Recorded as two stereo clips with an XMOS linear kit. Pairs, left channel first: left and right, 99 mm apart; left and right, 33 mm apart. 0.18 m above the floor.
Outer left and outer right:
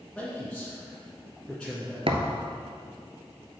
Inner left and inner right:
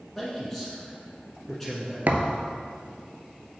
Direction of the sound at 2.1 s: 65° right (ahead or behind).